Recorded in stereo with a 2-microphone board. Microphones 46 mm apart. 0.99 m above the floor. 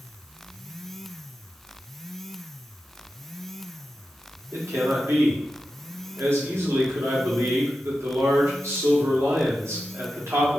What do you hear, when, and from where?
4.5 s a man speaking: 80° right, 2.0 m